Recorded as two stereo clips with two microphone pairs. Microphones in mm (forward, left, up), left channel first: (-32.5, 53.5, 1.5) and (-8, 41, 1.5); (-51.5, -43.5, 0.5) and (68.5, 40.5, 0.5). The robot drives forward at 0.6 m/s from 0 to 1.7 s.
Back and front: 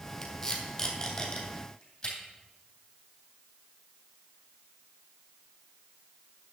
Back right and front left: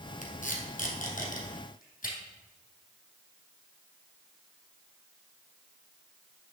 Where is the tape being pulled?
145° right, 2.0 m; by 2.1 s 155° right, 2.5 m.